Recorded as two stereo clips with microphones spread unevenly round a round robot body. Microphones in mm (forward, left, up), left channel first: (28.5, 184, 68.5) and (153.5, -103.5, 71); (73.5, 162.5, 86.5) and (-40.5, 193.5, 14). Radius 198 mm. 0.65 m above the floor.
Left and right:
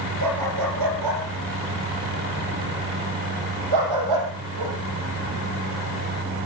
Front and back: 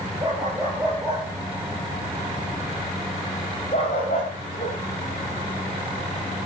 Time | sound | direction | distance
0.2 | a dog barking | 115° right | 3.5 m